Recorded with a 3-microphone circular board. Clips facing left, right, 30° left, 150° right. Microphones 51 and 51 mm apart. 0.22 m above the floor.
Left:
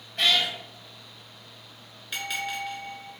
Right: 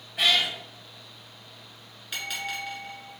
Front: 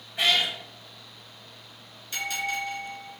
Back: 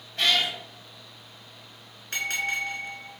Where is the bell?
Straight behind, 1.2 m.